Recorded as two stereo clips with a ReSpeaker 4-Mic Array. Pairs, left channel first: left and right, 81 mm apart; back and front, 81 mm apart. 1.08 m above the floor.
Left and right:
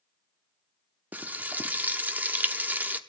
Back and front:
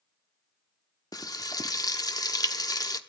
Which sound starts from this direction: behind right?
Frying, at 1.1 s.